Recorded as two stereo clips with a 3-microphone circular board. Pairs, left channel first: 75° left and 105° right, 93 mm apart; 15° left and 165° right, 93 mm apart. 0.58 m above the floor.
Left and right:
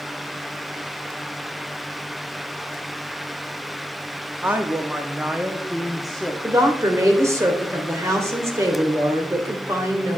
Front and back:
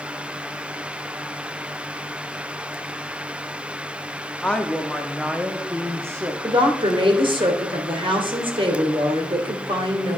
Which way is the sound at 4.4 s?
55° right.